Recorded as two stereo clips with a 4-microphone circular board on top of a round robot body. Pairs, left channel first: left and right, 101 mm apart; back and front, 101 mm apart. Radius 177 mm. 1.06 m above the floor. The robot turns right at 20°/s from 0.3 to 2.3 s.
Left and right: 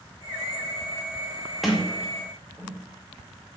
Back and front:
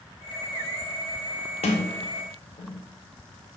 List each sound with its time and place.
1.6 s a sliding door: straight behind, 1.7 m; by 2.8 s 165° right, 1.7 m